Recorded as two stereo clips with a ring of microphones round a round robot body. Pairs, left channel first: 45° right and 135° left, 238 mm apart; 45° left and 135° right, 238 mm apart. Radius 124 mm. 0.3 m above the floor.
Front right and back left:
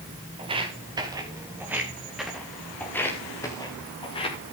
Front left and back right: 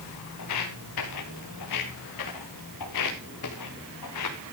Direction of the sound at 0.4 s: 65° left.